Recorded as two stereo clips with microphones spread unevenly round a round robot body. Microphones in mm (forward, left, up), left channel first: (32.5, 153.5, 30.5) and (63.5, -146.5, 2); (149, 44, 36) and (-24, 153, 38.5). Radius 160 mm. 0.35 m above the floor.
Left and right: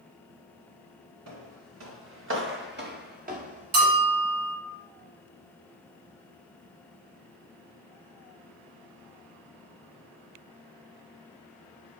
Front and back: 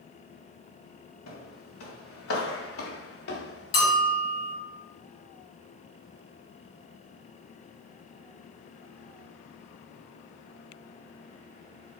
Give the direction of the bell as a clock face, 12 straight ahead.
2 o'clock.